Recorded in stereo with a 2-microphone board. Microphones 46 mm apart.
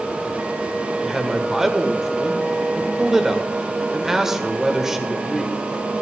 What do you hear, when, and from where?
1.0 s a man speaking: 10° right (ahead or behind), 1.3 m